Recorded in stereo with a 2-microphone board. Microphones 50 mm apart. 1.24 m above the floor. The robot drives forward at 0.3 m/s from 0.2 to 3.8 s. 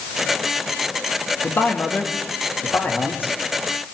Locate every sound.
1.4 s a man speaking: 55° left (ahead or behind), 2 m; by 3.3 s 45° left (ahead or behind), 2.5 m